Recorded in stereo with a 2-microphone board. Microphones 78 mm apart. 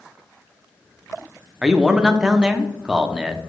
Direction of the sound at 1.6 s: 10° right (ahead or behind).